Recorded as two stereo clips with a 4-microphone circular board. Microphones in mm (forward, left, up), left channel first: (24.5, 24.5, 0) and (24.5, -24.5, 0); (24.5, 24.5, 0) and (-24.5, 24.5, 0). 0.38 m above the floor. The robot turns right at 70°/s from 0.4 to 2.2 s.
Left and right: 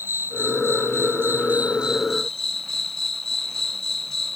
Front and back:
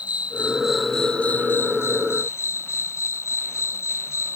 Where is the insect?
120° right; by 4.4 s 5° left.